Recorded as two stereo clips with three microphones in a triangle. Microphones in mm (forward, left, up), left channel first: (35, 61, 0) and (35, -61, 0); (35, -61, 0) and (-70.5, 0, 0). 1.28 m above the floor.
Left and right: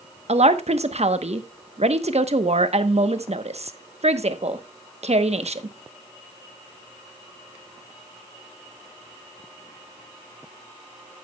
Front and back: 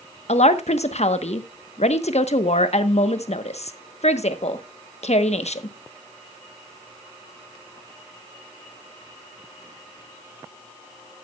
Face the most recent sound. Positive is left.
turn(degrees=-60)